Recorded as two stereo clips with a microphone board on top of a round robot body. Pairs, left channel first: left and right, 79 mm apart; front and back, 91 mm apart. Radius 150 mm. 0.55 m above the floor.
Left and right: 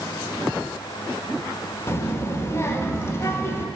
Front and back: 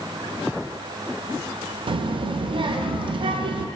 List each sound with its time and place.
1.9 s a child speaking: 150° left, 0.5 m